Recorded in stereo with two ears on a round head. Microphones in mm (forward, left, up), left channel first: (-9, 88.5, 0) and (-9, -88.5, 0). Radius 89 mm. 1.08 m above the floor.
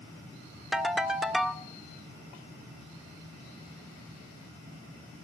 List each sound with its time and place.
0.7 s a ringtone: 5° right (ahead or behind), 1.1 m